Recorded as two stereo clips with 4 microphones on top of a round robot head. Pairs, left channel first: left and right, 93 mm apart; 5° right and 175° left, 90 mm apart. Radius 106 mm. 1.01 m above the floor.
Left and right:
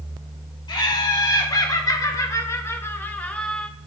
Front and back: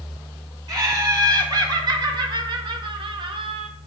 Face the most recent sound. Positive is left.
turn(degrees=180)